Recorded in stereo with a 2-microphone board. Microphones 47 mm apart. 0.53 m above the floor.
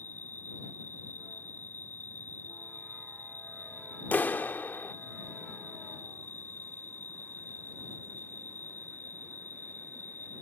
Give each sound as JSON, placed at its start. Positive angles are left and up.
{"t": 0.0, "sound": "an insect", "side_deg": 50}
{"t": 4.1, "sound": "a clap", "side_deg": 45}